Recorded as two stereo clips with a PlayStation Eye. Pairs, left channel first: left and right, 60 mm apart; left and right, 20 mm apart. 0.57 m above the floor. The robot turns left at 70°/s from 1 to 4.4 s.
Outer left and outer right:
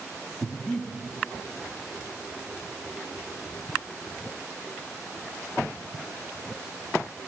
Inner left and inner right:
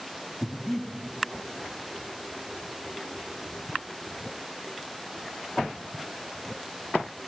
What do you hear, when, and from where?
0.4 s breathing: 10° left (ahead or behind), 1.2 m